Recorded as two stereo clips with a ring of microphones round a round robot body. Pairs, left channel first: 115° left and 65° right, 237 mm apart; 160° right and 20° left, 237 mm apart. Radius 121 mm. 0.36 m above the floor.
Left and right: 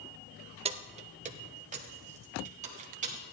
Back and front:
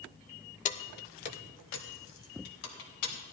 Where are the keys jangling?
120° right, 0.6 m; by 3.3 s 125° right, 2.5 m.